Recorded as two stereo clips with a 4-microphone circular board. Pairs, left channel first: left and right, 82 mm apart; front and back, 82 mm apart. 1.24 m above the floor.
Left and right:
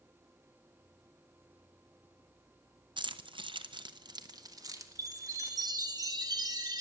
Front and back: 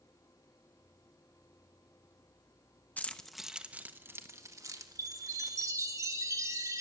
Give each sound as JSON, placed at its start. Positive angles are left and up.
{"t": 3.0, "sound": "keys jangling", "azimuth_deg": -70, "distance_m": 0.6}
{"t": 5.0, "sound": "a chime", "azimuth_deg": -130, "distance_m": 1.1}